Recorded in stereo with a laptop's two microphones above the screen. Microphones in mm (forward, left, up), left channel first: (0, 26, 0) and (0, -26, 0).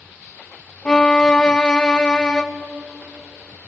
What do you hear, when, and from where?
0.8 s a violin: 15° left (ahead or behind), 1.0 m